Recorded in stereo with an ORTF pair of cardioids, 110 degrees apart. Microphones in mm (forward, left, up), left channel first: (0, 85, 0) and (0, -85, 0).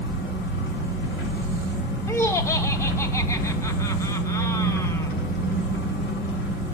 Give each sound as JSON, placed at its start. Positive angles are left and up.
{"t": 0.0, "sound": "an engine running", "azimuth_deg": 65, "distance_m": 6.0}
{"t": 2.1, "sound": "laughter", "azimuth_deg": 15, "distance_m": 1.2}